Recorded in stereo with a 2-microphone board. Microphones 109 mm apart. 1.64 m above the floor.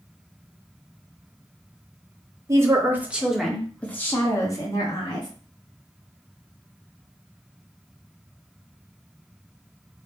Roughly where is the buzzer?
No buzzer in this recording.